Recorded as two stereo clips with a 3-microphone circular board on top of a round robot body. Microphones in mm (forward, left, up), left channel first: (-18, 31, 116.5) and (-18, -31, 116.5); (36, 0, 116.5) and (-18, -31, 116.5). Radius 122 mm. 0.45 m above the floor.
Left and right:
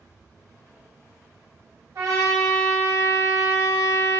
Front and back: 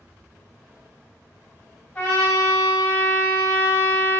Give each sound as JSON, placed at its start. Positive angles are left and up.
{"t": 1.9, "sound": "a trumpet", "azimuth_deg": -35, "distance_m": 0.5}